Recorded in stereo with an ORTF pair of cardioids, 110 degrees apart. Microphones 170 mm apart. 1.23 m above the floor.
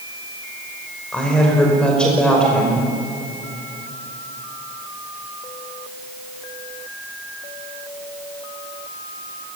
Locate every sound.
1.1 s a woman speaking: 5° left, 5 m